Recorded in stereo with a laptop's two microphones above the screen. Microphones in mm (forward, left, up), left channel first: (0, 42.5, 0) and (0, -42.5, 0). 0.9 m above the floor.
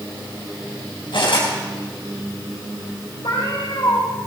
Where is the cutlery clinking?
75° left (ahead or behind), 4.5 m.